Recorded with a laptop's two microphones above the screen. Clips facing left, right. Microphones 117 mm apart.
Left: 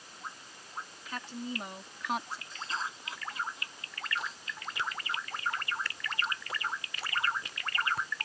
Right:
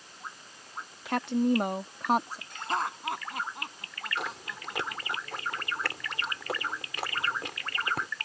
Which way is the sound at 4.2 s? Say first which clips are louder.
Right 4 dB; 75° right (ahead or behind).